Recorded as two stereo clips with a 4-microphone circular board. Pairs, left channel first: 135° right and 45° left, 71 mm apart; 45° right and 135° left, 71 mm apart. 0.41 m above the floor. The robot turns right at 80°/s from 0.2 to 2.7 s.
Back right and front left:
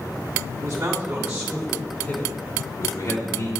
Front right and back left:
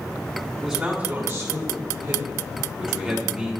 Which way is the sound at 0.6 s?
55° left.